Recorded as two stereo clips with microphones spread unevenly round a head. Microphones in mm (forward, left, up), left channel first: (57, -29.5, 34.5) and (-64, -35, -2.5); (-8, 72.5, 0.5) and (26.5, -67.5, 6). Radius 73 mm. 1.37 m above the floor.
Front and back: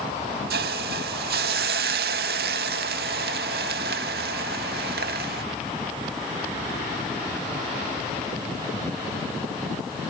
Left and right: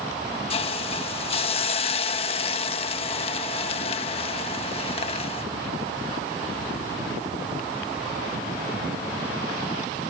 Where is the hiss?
155° left.